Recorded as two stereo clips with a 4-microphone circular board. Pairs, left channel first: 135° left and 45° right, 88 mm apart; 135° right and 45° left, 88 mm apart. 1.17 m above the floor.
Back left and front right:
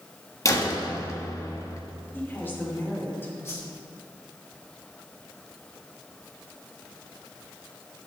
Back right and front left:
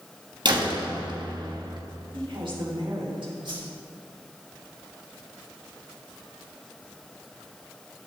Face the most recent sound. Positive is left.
turn(degrees=75)